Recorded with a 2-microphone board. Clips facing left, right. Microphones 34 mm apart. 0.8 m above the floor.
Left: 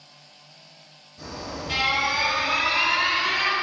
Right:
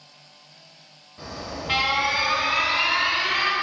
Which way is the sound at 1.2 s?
35° right (ahead or behind).